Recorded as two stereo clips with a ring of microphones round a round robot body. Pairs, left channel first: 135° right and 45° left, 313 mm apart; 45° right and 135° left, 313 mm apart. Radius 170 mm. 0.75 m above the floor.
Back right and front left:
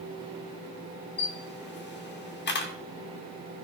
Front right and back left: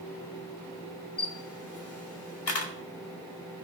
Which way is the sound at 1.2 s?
80° right.